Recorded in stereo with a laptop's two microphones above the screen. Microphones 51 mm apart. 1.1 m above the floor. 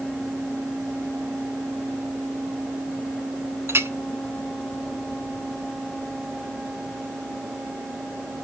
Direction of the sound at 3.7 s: 50° right (ahead or behind).